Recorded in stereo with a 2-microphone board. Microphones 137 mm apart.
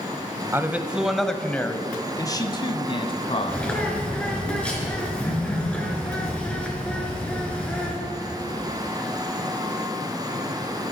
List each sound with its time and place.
0.5 s a man speaking: 20° right (ahead or behind), 1.0 m; by 3.7 s 45° left (ahead or behind), 1.7 m
3.5 s a bird: 10° left (ahead or behind), 3.5 m